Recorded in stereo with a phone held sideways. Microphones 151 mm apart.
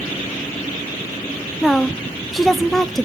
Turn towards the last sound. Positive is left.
turn(degrees=0)  # may be behind; listen again after turning